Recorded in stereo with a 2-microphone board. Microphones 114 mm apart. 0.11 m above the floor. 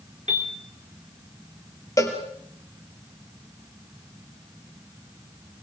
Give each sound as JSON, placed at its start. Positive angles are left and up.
{"t": 0.3, "sound": "a piano", "side_deg": -75, "distance_m": 3.0}
{"t": 2.0, "sound": "a cowbell", "side_deg": 30, "distance_m": 3.0}